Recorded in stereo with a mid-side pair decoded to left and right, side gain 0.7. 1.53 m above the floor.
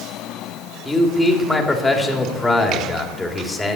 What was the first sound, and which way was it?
A man speaking, 10° left.